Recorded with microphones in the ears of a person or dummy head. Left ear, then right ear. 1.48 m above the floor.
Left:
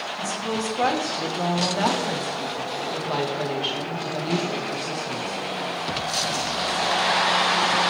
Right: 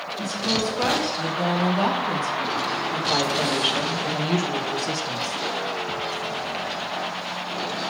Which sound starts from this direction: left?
A woman speaking, at 0.2 s.